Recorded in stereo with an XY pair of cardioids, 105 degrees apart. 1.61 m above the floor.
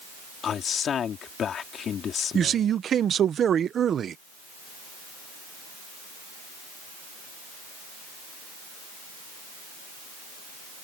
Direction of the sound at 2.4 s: 55° right.